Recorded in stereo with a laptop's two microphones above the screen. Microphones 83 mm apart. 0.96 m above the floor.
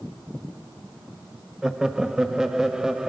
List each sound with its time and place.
1.6 s laughter: 10° right (ahead or behind), 1.4 m